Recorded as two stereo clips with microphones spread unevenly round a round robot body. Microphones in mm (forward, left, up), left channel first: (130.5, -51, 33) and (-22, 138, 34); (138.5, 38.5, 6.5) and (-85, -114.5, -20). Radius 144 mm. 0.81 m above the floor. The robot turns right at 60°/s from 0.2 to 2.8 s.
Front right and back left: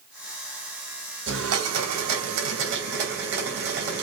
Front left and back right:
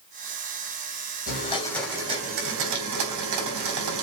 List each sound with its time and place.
1.3 s a blender: 90° left, 3 m; by 4.0 s 175° right, 3 m